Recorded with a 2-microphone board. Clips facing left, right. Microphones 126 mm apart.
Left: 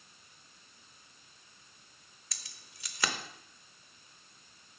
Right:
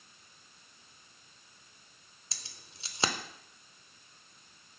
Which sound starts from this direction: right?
Keys jangling, at 2.3 s.